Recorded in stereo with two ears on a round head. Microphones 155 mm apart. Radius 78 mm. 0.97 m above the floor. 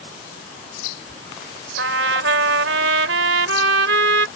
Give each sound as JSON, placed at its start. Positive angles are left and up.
{"t": 1.8, "sound": "a trumpet", "side_deg": -80}